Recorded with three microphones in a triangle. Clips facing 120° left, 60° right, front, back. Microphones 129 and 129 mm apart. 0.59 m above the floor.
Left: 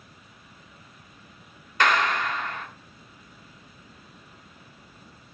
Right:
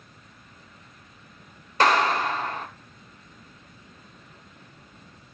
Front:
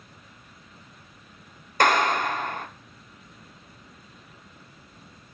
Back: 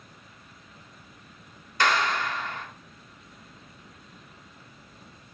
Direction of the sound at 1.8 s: 15° right.